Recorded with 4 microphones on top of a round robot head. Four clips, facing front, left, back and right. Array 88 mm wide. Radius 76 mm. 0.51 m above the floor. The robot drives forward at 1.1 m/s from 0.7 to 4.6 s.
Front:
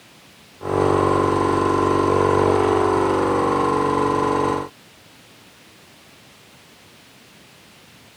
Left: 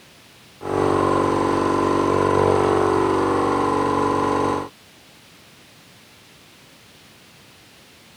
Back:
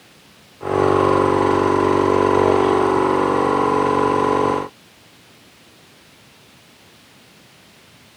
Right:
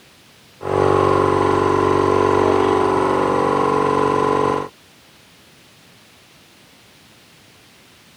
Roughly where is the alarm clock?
I don't hear an alarm clock.